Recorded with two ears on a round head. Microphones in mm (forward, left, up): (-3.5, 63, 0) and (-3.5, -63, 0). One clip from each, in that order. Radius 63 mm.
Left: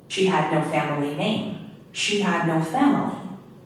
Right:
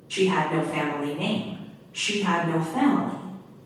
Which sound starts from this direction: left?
A woman speaking, at 0.1 s.